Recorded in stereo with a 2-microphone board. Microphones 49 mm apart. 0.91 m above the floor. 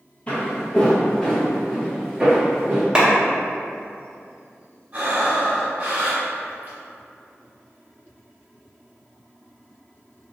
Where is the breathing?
35° right (ahead or behind), 1.0 m.